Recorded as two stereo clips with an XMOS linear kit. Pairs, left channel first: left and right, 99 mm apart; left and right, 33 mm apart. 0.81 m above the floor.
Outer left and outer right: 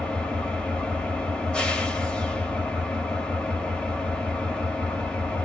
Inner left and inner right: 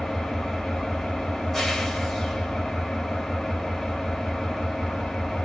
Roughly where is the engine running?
Centre.